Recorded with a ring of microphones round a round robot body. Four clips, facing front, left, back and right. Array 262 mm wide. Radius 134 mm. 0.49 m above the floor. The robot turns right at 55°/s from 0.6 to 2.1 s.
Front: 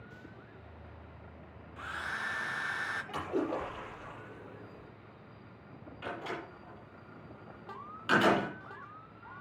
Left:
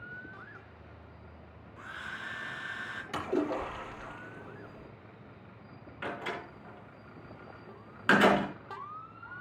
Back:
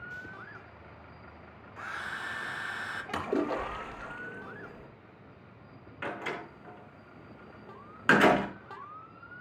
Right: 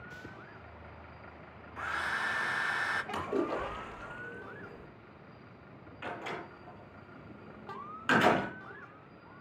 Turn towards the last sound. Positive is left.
turn(degrees=155)